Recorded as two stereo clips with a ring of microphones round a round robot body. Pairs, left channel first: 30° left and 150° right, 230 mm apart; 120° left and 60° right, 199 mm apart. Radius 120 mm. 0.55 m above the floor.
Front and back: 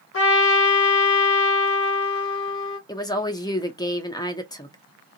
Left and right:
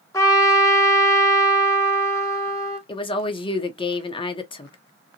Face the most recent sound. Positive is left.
turn(degrees=85)